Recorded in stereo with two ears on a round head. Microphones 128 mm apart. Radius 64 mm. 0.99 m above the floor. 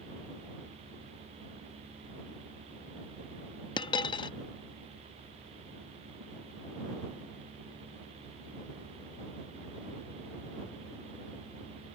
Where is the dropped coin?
35° left (ahead or behind).